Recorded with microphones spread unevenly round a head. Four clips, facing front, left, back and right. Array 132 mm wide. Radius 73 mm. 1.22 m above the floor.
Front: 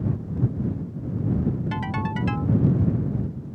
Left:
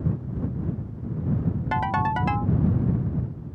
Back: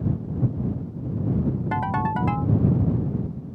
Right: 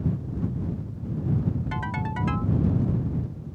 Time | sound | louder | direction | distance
1.7 | a ringtone | left 7 dB, back 4 dB | 130° left | ?